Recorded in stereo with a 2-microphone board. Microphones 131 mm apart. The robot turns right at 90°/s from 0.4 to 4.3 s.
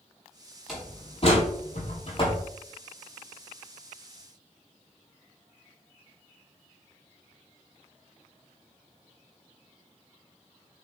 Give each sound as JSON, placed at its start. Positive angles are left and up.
{"t": 0.7, "sound": "a door slam", "side_deg": 0, "distance_m": 4.5}